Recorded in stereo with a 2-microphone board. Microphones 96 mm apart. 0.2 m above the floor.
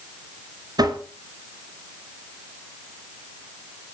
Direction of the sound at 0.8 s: 50° right (ahead or behind).